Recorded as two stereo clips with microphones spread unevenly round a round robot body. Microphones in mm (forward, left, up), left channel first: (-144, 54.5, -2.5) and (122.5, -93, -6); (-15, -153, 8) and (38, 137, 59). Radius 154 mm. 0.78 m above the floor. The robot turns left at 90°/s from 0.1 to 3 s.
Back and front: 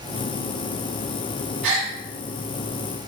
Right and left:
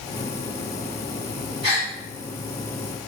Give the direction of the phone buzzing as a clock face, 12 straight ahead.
No phone buzzing in this recording.